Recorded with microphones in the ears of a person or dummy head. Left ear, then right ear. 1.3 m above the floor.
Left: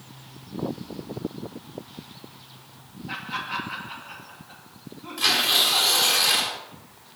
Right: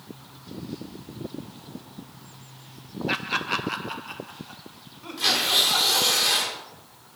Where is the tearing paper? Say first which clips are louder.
Left 1 dB; 20° left (ahead or behind), 2 m.